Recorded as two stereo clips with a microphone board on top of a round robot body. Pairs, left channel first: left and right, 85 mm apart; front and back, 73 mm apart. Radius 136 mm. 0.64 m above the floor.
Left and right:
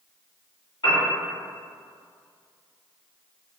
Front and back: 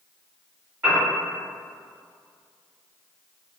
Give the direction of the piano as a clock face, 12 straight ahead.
8 o'clock.